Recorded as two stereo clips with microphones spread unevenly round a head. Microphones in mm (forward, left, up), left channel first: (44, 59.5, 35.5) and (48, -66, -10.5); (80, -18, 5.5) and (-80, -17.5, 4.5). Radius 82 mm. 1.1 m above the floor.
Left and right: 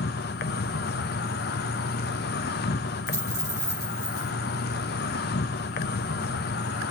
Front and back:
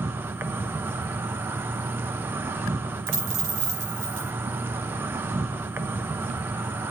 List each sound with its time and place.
0.0 s an insect: 100° left, 0.7 m
3.1 s a dropped coin: 160° left, 8 m